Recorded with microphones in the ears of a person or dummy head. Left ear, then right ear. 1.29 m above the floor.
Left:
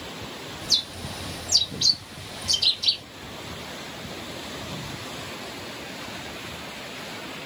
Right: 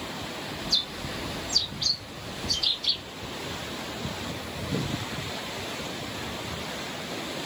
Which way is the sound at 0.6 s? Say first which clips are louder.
Left 3 dB; 70° left (ahead or behind).